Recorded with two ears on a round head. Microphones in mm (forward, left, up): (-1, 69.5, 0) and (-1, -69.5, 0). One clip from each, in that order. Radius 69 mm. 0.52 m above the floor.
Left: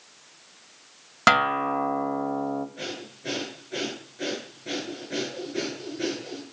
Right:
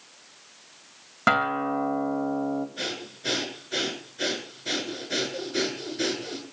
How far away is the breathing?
About 7.5 m.